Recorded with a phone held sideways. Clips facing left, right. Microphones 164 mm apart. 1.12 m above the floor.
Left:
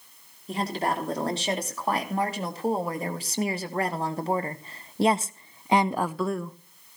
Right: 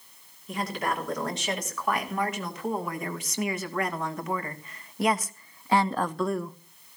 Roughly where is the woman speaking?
Left.